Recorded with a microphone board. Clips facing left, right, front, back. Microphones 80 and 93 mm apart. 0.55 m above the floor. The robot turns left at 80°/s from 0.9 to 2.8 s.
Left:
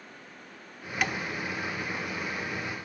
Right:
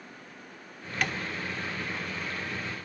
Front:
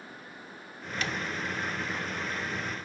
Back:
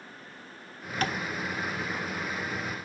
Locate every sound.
1.0 s tapping: 170° left, 1.3 m; by 1.2 s 155° left, 1.3 m